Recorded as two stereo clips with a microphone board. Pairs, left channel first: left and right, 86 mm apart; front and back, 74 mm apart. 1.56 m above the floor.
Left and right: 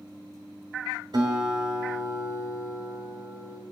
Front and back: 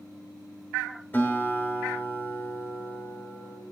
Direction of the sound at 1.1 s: 60° right.